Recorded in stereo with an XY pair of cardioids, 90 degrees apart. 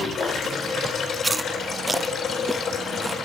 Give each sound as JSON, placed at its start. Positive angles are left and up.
{"t": 0.0, "sound": "running water", "azimuth_deg": 65, "distance_m": 4.5}
{"t": 1.2, "sound": "chewing", "azimuth_deg": -15, "distance_m": 0.6}